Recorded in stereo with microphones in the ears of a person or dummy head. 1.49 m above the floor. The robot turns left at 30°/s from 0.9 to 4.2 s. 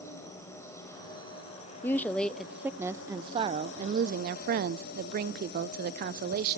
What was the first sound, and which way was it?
An insect, 160° left.